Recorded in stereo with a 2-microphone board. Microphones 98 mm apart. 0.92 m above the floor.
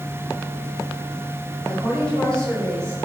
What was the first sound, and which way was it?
A woman speaking, 10° left (ahead or behind).